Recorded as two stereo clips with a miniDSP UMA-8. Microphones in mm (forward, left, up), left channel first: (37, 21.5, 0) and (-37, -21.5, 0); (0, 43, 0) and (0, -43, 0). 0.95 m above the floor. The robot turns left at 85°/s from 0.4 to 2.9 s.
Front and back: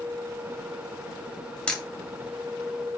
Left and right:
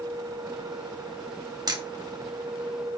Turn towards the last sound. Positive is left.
turn(degrees=-150)